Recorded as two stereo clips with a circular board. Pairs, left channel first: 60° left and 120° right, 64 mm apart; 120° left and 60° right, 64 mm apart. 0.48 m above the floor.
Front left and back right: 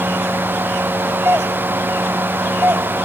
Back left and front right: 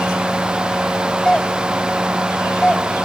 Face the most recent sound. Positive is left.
turn(degrees=-165)